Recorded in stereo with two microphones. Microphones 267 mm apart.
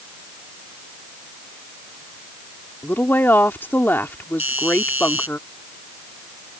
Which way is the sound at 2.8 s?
10° left (ahead or behind).